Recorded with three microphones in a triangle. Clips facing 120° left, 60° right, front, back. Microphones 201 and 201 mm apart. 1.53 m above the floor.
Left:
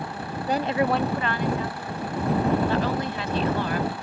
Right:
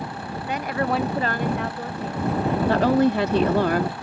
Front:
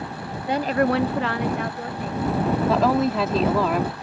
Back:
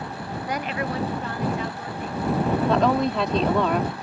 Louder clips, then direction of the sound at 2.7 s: Right 7 dB, front 2 dB; 85° right.